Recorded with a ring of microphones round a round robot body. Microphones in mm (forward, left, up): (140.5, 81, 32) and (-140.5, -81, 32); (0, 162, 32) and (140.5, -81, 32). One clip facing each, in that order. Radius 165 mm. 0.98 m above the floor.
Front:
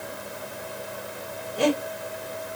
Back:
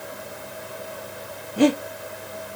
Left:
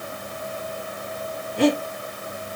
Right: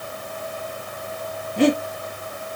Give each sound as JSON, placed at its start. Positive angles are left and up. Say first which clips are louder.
{"t": 1.6, "sound": "breathing", "louder": "back 5 dB, right 2 dB", "azimuth_deg": -115, "distance_m": 1.9}